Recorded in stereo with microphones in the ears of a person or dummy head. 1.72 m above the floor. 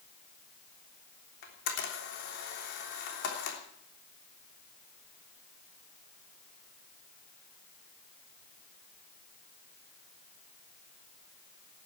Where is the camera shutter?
60° left (ahead or behind), 3 m.